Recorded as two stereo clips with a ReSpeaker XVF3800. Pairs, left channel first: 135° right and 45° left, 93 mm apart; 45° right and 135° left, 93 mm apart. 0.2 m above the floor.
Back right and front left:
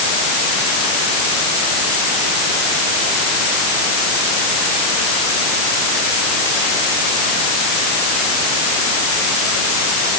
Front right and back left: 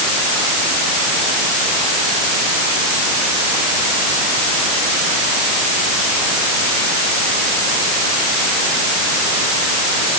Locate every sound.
Only background noise.